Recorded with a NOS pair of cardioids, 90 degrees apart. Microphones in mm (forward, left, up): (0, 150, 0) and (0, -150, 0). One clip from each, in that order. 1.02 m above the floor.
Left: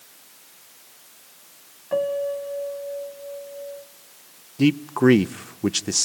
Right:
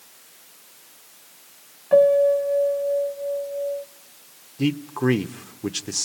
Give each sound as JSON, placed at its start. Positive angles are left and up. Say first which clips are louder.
{"t": 1.9, "sound": "a piano", "louder": "right 9 dB", "azimuth_deg": -15, "distance_m": 0.9}
{"t": 4.6, "sound": "a man speaking", "louder": "left 5 dB", "azimuth_deg": 25, "distance_m": 0.6}